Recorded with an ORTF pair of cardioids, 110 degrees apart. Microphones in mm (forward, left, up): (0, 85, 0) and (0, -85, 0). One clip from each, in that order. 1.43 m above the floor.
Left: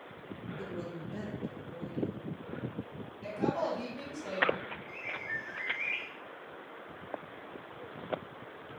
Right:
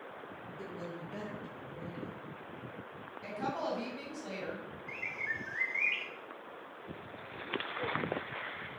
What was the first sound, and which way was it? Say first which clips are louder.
A woman speaking: left 2 dB; 15° left.